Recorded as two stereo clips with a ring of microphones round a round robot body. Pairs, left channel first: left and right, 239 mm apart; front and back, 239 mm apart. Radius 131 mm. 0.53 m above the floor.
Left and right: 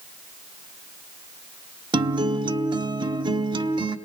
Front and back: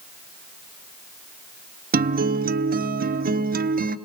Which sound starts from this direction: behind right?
A guitar, at 1.9 s.